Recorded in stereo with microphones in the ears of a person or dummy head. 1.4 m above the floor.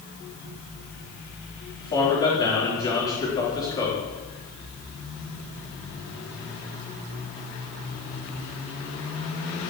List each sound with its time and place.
1.8 s a man speaking: 25° left (ahead or behind), 4.5 m